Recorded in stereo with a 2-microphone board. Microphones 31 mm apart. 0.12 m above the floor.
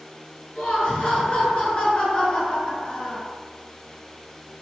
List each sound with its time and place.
0.6 s laughter: 35° left (ahead or behind), 1.6 m